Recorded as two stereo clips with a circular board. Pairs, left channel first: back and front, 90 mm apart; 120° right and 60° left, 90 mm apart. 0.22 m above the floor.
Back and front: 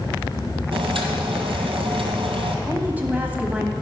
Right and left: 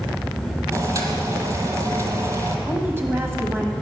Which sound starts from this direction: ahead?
Boiling, at 0.7 s.